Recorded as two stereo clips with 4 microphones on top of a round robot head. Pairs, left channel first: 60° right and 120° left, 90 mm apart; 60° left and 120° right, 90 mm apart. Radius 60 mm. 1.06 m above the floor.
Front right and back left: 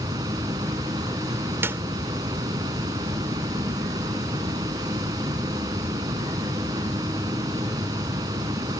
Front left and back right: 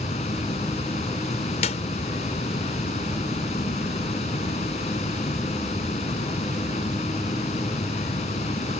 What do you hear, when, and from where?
0.0 s running water: 70° left
1.6 s a clap: 55° left